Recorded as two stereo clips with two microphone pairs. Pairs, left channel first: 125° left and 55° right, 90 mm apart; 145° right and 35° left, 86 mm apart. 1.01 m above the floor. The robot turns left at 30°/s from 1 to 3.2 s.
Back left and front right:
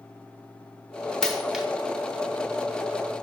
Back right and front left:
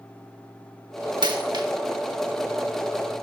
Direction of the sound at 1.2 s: 40° left.